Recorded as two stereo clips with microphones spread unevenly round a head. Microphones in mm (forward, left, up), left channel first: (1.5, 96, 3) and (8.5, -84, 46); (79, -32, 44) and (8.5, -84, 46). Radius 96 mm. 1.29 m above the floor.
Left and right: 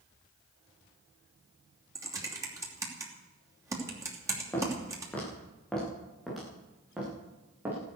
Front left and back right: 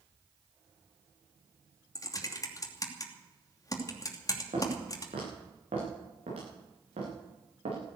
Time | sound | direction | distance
1.9 | typing on a keyboard | 15° right | 2.5 m
4.5 | footsteps | 170° left | 9.5 m